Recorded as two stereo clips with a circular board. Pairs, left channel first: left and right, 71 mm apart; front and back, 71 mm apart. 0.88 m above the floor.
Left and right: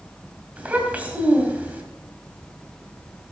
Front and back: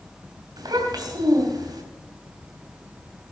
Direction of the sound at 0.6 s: 160° right.